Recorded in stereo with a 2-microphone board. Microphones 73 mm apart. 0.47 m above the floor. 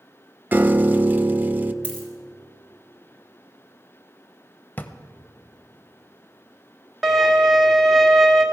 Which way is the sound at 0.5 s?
25° right (ahead or behind).